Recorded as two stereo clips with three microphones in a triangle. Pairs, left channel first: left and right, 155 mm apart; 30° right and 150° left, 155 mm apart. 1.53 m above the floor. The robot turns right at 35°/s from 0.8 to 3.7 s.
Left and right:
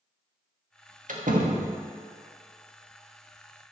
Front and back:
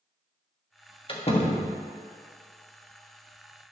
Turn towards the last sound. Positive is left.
turn(degrees=10)